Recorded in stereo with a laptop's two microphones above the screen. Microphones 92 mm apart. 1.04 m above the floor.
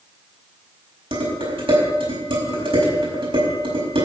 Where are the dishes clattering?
80° right, 4.5 m.